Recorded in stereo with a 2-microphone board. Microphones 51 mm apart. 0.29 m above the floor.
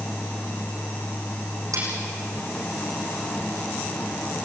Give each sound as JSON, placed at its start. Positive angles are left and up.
{"t": 1.7, "sound": "cutlery clinking", "side_deg": -85, "distance_m": 9.5}